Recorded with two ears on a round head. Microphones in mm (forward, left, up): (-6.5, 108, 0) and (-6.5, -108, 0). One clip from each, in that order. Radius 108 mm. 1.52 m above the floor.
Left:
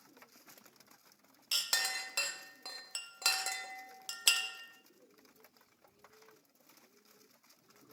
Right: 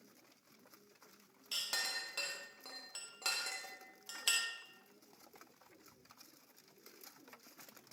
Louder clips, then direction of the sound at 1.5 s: Left 5 dB; 30° left (ahead or behind).